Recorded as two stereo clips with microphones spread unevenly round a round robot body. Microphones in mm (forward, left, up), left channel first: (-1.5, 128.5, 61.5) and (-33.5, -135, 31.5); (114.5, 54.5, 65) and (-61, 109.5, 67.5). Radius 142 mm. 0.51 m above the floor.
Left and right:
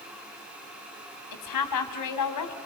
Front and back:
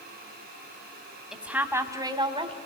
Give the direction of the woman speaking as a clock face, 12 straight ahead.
9 o'clock.